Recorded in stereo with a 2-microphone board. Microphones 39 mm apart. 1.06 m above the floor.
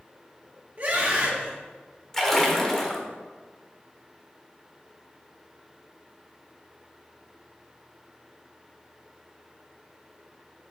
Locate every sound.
0.8 s a scream: 40° right (ahead or behind), 2 m
2.1 s a splash: 10° left (ahead or behind), 1.1 m